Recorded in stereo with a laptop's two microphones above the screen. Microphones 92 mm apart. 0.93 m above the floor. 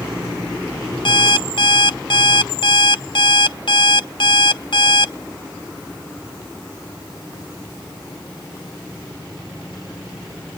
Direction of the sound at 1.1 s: 65° left (ahead or behind).